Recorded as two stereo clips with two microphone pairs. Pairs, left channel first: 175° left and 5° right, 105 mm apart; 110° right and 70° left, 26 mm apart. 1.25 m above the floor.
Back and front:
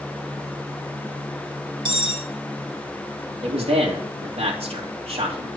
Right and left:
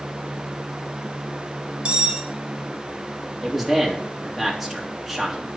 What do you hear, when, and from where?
1.9 s cutlery clinking: 25° left, 2 m
3.4 s a man speaking: 20° right, 2.5 m